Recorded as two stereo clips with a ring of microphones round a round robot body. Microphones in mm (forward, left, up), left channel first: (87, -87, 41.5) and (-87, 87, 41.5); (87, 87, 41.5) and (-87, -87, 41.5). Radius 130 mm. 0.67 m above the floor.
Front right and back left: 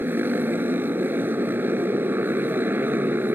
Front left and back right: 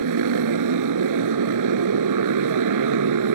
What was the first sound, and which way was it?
A motorcycle, 140° right.